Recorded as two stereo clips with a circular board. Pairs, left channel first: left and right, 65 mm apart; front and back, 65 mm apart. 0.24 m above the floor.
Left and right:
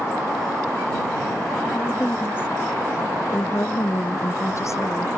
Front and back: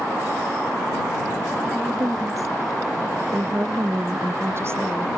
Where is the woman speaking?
150° left; by 5.1 s 130° left.